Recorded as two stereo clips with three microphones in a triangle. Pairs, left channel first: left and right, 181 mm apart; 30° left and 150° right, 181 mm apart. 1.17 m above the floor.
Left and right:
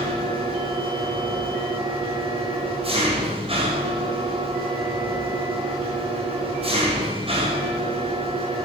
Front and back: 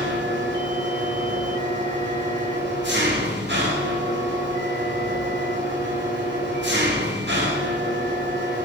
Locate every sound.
0.0 s an engine running: 150° right, 4 m